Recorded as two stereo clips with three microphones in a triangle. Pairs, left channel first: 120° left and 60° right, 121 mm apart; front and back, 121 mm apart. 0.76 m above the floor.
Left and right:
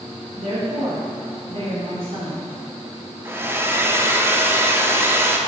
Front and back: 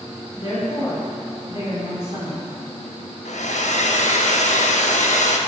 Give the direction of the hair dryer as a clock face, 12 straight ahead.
12 o'clock.